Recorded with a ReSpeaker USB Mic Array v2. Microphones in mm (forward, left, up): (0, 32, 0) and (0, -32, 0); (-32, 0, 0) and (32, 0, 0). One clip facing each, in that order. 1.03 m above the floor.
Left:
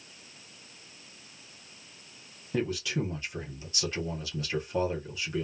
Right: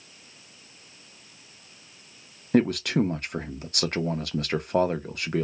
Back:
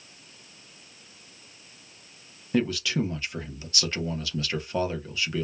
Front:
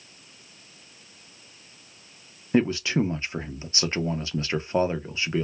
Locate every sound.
2.5 s a man speaking: 60° right, 0.5 m